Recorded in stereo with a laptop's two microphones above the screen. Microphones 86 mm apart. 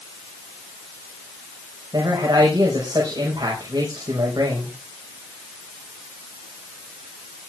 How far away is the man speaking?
About 5.5 m.